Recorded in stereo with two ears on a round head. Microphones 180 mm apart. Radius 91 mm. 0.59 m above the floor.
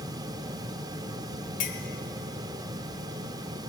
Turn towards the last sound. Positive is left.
turn(degrees=40)  # may be behind; listen again after turning